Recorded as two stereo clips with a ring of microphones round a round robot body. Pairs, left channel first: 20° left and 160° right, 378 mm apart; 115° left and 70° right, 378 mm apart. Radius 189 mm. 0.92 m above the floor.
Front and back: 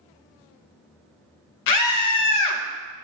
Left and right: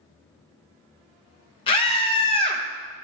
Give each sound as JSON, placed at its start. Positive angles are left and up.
{"t": 1.7, "sound": "a scream", "azimuth_deg": 40, "distance_m": 0.8}